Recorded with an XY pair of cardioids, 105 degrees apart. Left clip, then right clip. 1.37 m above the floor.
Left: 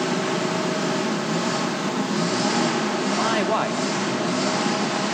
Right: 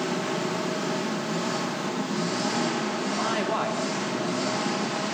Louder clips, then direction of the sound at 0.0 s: Left 4 dB; 35° left.